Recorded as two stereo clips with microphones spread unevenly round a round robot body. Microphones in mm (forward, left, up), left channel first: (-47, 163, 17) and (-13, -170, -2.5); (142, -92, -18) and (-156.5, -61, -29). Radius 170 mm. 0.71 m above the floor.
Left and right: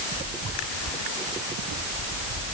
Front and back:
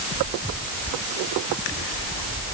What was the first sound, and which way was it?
Only background noise.